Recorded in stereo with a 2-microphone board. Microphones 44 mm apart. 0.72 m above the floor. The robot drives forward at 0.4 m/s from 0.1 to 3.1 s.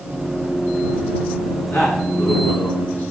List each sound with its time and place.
1.7 s a man speaking: 80° left, 8 m; by 3.0 s 75° left (ahead or behind), 8.5 m